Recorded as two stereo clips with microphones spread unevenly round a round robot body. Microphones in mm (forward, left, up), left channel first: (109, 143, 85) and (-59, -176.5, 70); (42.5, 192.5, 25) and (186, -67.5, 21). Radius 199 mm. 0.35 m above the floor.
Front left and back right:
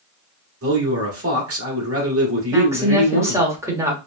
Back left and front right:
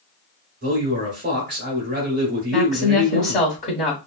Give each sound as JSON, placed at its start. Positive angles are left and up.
{"t": 0.6, "sound": "a man speaking", "azimuth_deg": -95, "distance_m": 1.5}
{"t": 2.5, "sound": "a woman speaking", "azimuth_deg": 170, "distance_m": 1.2}